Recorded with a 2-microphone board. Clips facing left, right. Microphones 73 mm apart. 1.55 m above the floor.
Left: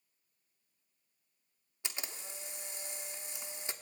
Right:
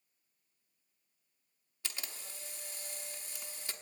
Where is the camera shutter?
20° left (ahead or behind), 1.1 m.